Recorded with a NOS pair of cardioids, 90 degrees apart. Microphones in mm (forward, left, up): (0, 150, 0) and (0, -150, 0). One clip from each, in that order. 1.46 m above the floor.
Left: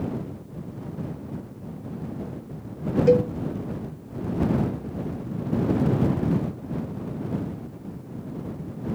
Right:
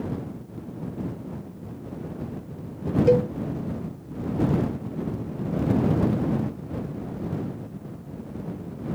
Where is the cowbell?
5° left.